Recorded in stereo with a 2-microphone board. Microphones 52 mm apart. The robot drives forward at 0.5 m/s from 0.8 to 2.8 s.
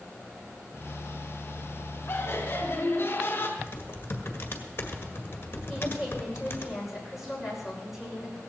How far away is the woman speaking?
About 6.5 m.